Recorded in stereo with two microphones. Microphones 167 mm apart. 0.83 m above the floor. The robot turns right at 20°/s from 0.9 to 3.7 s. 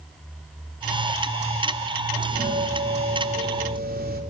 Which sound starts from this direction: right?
A doorbell, at 2.1 s.